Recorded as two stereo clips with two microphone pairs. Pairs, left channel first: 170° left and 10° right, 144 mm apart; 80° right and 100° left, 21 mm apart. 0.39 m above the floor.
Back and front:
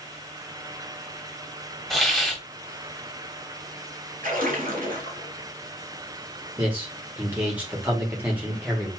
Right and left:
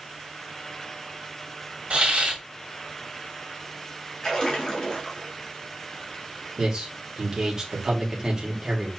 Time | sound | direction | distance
1.9 | a hiss | 80° left | 1.7 m
4.2 | a splash | 20° right | 1.5 m
6.6 | a man speaking | 55° left | 0.9 m